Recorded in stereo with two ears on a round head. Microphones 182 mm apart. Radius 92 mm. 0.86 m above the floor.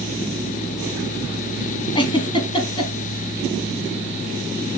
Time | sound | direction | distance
1.9 | a giggle | 25° left (ahead or behind) | 2.0 m